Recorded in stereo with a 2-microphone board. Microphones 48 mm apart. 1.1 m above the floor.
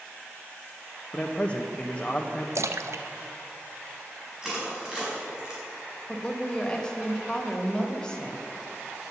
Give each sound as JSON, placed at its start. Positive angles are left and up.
{"t": 1.1, "sound": "a man speaking", "side_deg": 25, "distance_m": 0.9}
{"t": 2.5, "sound": "a splash", "side_deg": -70, "distance_m": 0.6}
{"t": 4.4, "sound": "crushing", "side_deg": -15, "distance_m": 5.5}
{"t": 6.1, "sound": "a woman speaking", "side_deg": 15, "distance_m": 1.8}